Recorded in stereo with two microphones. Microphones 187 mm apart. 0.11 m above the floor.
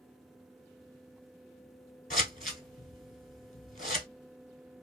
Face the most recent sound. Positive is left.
turn(degrees=50)  # may be behind; listen again after turning